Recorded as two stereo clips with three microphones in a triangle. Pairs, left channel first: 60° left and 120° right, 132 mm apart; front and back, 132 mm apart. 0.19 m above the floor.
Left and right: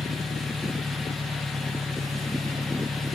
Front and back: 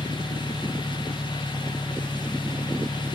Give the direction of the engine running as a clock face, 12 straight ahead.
4 o'clock.